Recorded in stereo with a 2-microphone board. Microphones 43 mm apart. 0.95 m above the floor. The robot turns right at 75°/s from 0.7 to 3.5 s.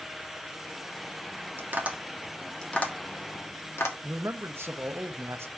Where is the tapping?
55° right (ahead or behind), 1.4 m; by 3.9 s 80° left, 1.4 m.